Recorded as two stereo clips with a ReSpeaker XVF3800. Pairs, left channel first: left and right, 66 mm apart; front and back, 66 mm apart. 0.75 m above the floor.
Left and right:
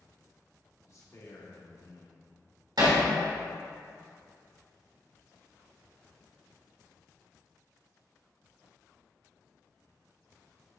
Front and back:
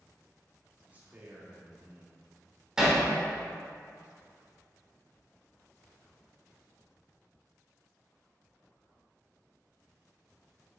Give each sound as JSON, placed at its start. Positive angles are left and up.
{"t": 0.9, "sound": "a man speaking", "azimuth_deg": 120, "distance_m": 1.6}
{"t": 2.8, "sound": "hammering", "azimuth_deg": -100, "distance_m": 2.0}